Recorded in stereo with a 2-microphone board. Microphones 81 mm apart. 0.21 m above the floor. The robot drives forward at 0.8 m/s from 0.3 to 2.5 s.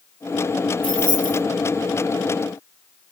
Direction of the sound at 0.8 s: 15° left (ahead or behind).